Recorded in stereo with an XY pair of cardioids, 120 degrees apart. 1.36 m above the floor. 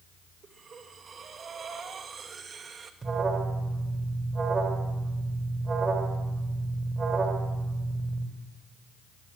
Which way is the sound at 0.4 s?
35° right.